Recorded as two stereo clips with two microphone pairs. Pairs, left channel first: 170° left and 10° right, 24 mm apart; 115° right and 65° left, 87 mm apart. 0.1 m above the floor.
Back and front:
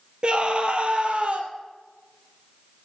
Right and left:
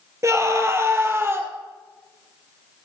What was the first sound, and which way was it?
A scream, 20° left.